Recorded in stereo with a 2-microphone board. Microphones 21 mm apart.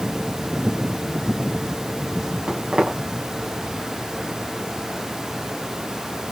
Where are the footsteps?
65° right (ahead or behind), 3 m.